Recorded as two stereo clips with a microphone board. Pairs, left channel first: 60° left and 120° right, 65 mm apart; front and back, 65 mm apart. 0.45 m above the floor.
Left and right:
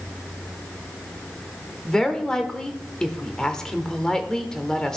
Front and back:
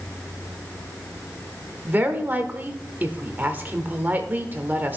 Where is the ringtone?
No ringtone in this recording.